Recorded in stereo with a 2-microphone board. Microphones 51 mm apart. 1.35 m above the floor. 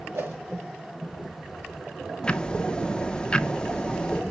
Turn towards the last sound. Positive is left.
turn(degrees=20)  # may be behind; listen again after turning